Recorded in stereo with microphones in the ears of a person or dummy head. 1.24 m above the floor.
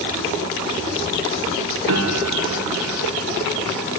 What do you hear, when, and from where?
1.9 s a piano: 80° right, 4 m